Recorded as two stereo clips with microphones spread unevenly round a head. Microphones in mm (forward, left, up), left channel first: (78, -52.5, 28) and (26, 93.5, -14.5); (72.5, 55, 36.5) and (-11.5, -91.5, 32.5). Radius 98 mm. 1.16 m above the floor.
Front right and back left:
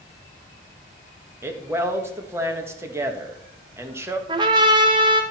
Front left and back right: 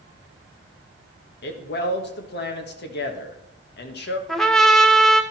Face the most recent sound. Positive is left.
turn(degrees=150)